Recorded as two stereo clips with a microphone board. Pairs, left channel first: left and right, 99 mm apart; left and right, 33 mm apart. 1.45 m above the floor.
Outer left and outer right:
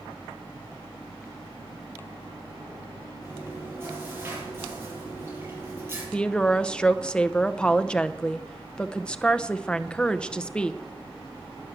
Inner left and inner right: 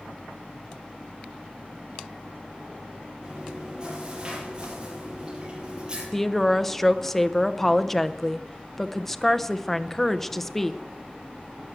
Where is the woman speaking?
10° left (ahead or behind), 0.6 m.